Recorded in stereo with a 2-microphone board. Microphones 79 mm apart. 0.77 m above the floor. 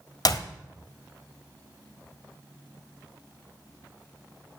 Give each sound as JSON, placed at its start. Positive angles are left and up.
{"t": 0.2, "sound": "a clap", "side_deg": 50, "distance_m": 1.2}